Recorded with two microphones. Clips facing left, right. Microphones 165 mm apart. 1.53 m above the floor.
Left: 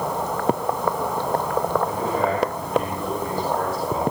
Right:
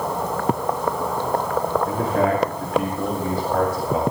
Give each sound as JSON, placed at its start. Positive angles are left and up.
{"t": 1.9, "sound": "a man speaking", "side_deg": -75, "distance_m": 4.0}